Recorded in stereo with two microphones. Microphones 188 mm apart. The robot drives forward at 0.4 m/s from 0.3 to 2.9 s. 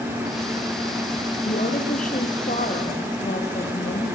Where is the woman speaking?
45° left (ahead or behind), 4 m; by 4.2 s 40° left (ahead or behind), 4.5 m.